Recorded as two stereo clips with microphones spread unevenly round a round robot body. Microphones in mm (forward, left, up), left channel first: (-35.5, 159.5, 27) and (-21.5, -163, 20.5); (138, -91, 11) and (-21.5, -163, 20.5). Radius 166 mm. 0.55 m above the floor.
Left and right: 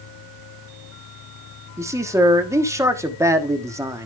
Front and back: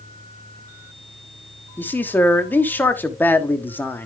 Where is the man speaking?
25° right, 1.3 m.